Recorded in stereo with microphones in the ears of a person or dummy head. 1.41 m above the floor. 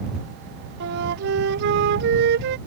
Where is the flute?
60° right (ahead or behind).